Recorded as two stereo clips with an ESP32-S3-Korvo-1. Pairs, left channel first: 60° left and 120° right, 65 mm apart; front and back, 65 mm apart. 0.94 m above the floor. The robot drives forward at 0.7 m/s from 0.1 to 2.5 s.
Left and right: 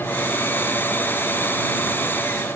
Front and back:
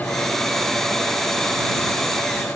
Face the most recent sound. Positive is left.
No sound to turn to.